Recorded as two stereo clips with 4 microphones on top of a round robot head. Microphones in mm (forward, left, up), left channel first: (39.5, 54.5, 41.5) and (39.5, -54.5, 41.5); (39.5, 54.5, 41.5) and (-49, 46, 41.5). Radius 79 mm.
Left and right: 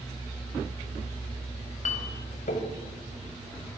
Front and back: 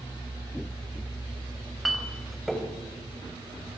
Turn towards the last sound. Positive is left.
turn(degrees=95)